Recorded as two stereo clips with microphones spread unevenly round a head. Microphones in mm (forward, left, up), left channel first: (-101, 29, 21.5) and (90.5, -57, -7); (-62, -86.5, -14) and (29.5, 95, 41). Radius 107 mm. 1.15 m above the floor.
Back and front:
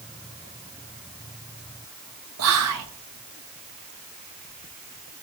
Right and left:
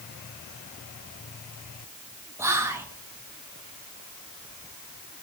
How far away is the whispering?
About 0.9 m.